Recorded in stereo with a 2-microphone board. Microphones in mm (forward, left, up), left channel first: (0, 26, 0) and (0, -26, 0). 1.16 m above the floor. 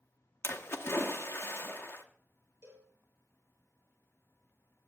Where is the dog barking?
No dog barking in this recording.